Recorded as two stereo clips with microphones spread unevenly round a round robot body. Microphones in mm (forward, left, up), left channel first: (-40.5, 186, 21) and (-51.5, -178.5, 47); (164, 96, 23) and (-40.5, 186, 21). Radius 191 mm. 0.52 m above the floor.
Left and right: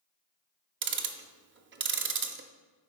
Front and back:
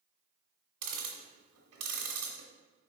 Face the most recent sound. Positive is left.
turn(degrees=-155)